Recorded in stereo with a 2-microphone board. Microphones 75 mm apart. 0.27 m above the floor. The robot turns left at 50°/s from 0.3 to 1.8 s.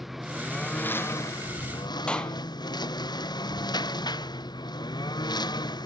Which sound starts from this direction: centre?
A clap, at 2.1 s.